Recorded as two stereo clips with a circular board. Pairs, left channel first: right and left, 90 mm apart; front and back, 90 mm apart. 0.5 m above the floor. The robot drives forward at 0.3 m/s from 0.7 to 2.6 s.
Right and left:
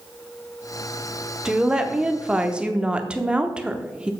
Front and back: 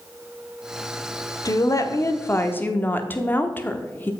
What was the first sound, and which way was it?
A woman speaking, 15° left.